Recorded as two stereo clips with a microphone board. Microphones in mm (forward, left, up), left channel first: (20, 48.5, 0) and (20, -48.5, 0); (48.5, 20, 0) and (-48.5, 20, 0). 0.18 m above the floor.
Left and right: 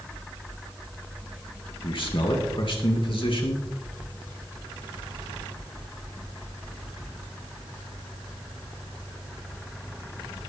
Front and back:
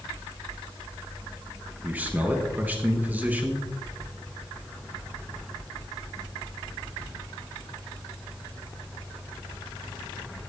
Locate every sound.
1.8 s a man speaking: 110° left, 3 m